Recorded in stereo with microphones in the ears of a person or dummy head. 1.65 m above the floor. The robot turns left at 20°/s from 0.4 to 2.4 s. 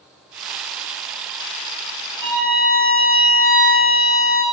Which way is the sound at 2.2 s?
30° right (ahead or behind).